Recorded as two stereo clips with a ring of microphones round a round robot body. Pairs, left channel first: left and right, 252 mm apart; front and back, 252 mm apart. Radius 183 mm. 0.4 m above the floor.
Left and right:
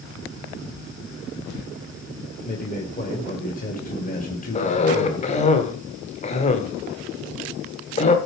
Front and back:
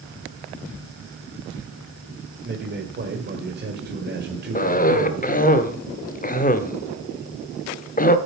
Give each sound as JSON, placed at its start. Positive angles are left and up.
{"t": 2.5, "sound": "a man speaking", "azimuth_deg": 140, "distance_m": 1.9}
{"t": 4.5, "sound": "a cough", "azimuth_deg": 40, "distance_m": 1.2}